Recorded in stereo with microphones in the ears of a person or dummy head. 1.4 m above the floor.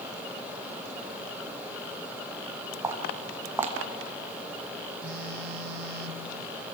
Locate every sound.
2.8 s footsteps: 10° right (ahead or behind), 2.5 m
5.0 s a phone buzzing: 55° right (ahead or behind), 1.3 m